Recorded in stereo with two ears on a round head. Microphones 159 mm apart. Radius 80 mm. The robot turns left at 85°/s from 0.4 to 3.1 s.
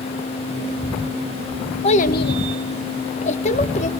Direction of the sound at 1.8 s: 35° left (ahead or behind).